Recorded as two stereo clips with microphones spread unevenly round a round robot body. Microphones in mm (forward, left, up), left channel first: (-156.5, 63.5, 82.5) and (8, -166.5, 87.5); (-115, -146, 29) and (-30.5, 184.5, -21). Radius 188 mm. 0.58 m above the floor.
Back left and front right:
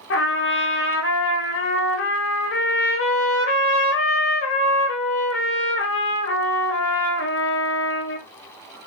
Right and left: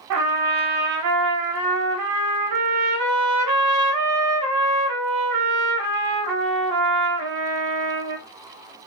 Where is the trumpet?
90° left, 0.8 m.